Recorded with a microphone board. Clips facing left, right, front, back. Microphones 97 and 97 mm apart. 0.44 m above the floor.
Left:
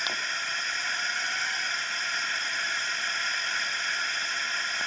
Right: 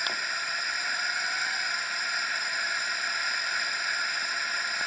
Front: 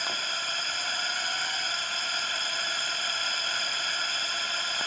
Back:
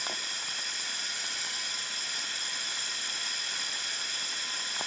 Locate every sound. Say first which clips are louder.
0.0 s a drone: even, front 6 dB; 5° right